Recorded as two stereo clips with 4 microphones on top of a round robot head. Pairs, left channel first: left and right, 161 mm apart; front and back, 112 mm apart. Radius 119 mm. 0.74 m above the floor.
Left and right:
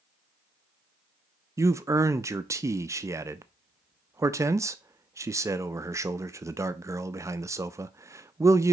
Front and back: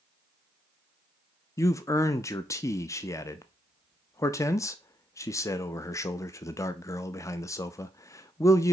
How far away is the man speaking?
About 0.5 m.